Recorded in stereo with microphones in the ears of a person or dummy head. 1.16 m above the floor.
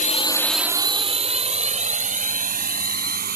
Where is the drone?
45° left (ahead or behind); by 3.4 s 50° right (ahead or behind).